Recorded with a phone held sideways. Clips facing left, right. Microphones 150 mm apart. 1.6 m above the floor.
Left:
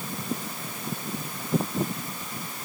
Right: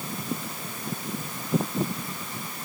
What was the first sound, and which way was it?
Only background noise.